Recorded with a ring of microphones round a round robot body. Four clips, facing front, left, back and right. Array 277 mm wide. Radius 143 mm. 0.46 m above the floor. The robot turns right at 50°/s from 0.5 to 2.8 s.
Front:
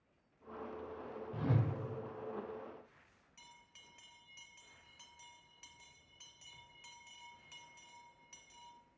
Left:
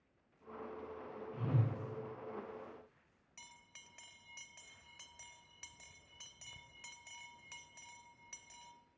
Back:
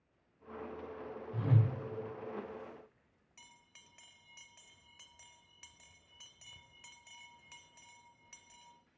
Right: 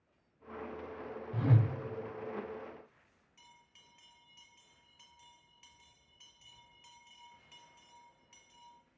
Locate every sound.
1.3 s a whoosh: 95° right, 0.7 m; by 1.7 s 70° right, 0.7 m
3.4 s a bell: 115° left, 0.6 m